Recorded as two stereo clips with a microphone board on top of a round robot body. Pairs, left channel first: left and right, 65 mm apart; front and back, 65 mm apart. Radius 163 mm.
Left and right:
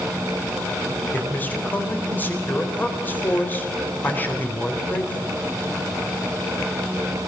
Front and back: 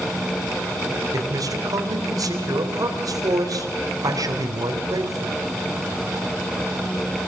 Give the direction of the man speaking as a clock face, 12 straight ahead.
7 o'clock.